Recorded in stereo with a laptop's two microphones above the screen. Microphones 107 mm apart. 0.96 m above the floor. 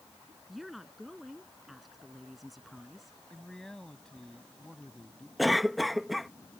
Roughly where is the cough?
Centre.